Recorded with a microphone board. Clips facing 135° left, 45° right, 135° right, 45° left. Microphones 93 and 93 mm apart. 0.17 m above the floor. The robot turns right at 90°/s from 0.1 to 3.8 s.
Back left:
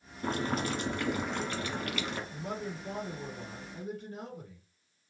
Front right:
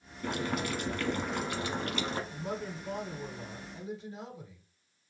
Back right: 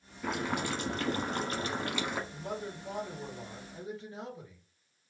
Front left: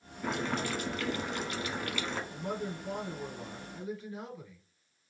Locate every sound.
0.2 s boiling: 130° left, 0.9 m; by 2.2 s 55° right, 0.9 m
2.3 s a man speaking: 30° left, 2.5 m; by 4.6 s 165° left, 2.5 m